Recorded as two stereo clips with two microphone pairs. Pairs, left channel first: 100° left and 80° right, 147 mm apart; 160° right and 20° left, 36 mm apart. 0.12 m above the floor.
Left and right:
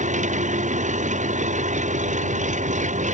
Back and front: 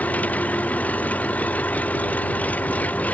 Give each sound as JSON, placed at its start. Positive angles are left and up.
{"t": 0.0, "sound": "an engine running", "azimuth_deg": -115}